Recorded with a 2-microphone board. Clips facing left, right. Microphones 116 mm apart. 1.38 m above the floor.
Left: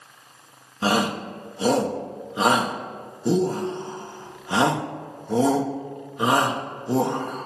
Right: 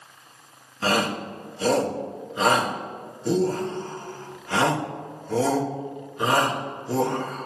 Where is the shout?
20° left (ahead or behind), 1.1 m.